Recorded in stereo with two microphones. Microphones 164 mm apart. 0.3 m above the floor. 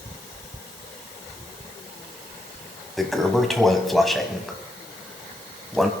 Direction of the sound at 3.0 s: Centre (ahead or behind).